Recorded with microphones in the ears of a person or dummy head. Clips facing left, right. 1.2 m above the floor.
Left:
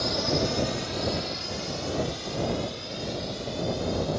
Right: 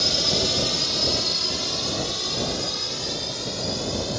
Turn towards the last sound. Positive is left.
turn(degrees=-75)  # may be behind; listen again after turning